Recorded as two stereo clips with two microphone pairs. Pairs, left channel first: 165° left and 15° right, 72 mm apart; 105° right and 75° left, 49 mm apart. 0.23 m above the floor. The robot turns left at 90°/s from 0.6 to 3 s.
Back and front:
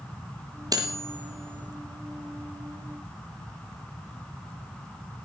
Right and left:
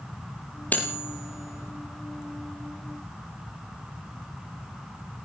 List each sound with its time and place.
0.7 s cutlery clinking: 45° right, 4.5 m; by 1.7 s 140° right, 4.5 m